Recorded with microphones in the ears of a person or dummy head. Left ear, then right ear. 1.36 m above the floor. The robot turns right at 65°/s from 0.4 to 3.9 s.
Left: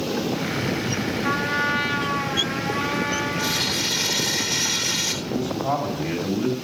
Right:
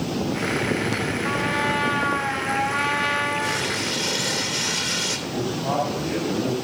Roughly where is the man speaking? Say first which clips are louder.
Left 1 dB; left.